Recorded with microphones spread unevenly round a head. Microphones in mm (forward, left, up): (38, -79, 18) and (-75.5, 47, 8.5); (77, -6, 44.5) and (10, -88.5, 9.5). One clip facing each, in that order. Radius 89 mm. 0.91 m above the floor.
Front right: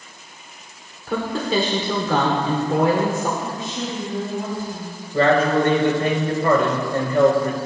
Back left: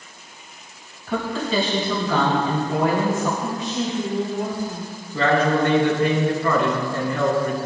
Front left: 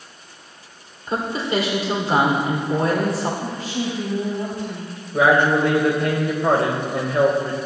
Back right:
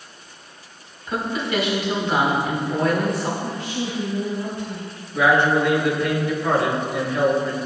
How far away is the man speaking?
About 3.5 m.